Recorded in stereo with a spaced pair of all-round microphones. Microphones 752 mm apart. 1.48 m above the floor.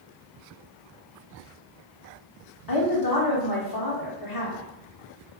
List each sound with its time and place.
2.7 s a woman speaking: 30° left (ahead or behind), 0.8 m